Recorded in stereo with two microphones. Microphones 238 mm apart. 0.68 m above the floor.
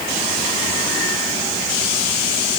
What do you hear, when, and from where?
Only background noise.